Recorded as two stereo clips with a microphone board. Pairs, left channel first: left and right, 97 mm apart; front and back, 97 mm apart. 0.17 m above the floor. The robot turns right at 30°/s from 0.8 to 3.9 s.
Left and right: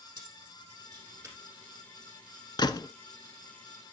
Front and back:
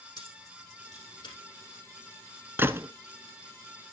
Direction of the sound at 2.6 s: 115° left.